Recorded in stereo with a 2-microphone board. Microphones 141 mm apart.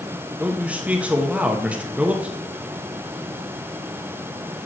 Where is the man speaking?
10° right (ahead or behind), 0.9 m.